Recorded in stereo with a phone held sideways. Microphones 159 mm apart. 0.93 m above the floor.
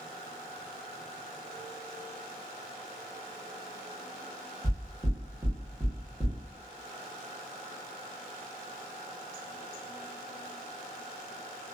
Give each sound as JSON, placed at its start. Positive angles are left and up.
{"t": 4.6, "sound": "knocking", "side_deg": -10, "distance_m": 1.0}